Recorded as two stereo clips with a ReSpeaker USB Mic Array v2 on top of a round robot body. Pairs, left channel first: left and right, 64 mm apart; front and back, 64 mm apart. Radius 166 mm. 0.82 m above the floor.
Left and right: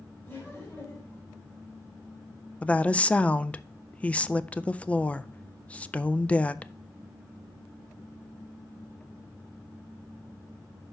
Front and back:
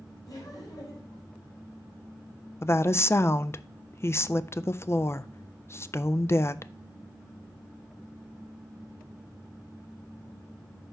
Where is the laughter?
30° left, 3.5 m.